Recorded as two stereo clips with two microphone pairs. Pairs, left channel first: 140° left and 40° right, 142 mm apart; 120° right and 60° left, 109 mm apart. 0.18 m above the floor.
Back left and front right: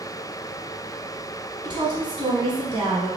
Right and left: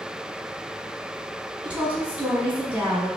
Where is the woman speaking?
10° right, 1.2 m.